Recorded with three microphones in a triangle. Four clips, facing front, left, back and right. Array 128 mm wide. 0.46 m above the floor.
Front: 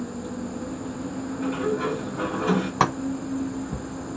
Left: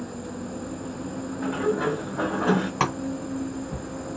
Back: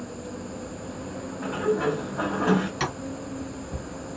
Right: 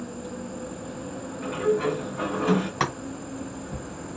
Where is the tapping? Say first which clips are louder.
Left 2 dB, front 8 dB; 5° left, 0.6 m.